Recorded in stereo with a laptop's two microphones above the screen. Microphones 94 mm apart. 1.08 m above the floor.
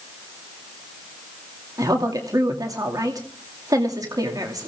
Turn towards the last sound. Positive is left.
turn(degrees=-40)  # may be behind; listen again after turning